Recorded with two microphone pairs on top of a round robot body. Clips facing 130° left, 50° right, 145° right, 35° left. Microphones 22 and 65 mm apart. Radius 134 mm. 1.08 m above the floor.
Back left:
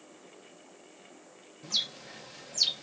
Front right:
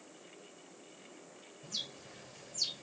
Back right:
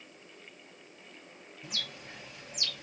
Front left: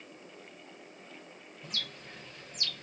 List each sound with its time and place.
1.6 s a bird: 135° left, 0.8 m